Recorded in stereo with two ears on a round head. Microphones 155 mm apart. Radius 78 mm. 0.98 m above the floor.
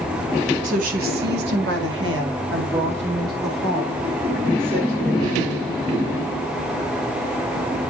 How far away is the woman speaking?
About 1.9 m.